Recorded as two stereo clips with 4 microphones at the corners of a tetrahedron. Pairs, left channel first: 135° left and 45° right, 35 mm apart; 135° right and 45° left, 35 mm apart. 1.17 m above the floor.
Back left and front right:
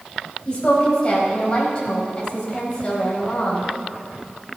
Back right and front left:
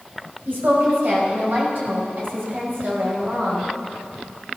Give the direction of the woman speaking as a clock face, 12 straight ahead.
10 o'clock.